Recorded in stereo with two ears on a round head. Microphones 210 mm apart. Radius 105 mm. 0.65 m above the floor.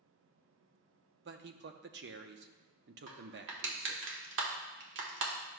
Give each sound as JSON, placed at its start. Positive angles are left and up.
{"t": 1.2, "sound": "a man speaking", "side_deg": -45, "distance_m": 0.7}
{"t": 3.1, "sound": "crushing", "side_deg": -50, "distance_m": 1.4}